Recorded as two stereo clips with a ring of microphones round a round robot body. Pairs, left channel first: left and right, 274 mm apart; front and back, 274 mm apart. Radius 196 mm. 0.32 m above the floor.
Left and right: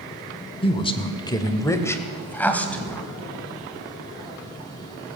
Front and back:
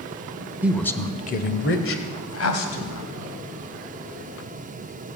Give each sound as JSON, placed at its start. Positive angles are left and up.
{"t": 0.6, "sound": "a woman speaking", "azimuth_deg": 110, "distance_m": 1.2}